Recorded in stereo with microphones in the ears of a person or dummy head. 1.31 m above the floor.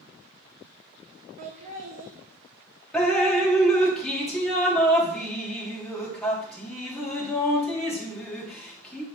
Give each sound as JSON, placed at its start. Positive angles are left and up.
{"t": 1.4, "sound": "laughter", "side_deg": -45, "distance_m": 1.6}
{"t": 2.9, "sound": "dripping", "side_deg": 5, "distance_m": 1.8}